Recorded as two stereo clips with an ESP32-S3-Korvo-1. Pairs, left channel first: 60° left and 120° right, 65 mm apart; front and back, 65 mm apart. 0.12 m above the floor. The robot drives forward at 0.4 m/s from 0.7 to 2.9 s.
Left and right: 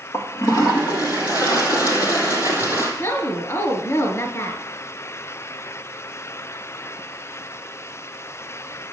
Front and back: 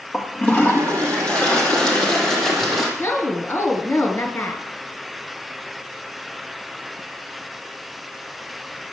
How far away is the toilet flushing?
About 2.5 m.